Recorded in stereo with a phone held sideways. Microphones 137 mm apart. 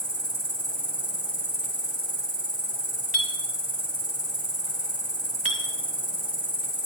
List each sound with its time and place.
0.0 s an insect: 35° right (ahead or behind), 1.5 m
3.1 s a clink: 65° right (ahead or behind), 1.5 m